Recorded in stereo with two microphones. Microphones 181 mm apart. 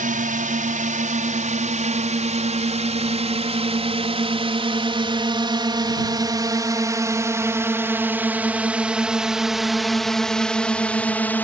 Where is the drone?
50° right (ahead or behind); by 11.5 s 10° left (ahead or behind).